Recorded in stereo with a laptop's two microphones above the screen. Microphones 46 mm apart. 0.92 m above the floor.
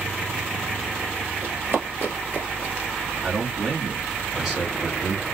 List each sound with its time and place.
1.4 s running footsteps: 55° right (ahead or behind), 1.5 m; by 2.9 s 30° right (ahead or behind), 0.9 m
3.2 s a man speaking: 5° right (ahead or behind), 2 m